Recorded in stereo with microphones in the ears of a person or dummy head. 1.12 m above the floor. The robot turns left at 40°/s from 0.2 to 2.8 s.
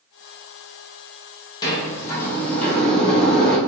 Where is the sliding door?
25° left (ahead or behind), 0.7 m; by 3.6 s 10° left (ahead or behind), 0.7 m.